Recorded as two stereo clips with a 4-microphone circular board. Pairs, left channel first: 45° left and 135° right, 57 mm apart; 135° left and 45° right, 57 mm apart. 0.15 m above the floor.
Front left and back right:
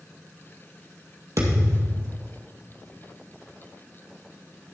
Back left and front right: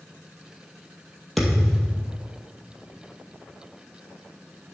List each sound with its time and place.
1.4 s a thud: 135° right, 2 m